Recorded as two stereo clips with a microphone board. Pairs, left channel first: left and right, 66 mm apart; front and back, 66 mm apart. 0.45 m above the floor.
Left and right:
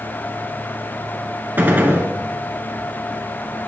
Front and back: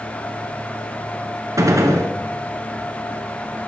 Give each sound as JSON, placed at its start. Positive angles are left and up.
{"t": 1.6, "sound": "a gunshot", "azimuth_deg": -150, "distance_m": 1.0}